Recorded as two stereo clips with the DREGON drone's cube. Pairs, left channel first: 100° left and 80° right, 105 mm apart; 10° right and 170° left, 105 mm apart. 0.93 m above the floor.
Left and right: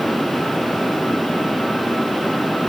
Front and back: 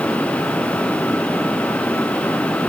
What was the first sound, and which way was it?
Only background noise.